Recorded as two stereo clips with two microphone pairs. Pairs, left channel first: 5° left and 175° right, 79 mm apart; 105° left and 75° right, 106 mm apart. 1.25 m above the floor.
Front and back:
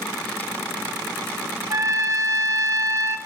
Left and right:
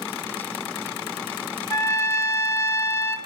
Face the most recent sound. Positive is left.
turn(degrees=160)